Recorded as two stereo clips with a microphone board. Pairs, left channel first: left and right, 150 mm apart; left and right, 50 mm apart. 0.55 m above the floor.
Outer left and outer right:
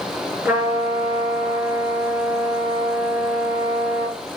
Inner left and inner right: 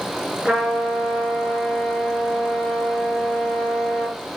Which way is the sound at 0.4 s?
10° right (ahead or behind).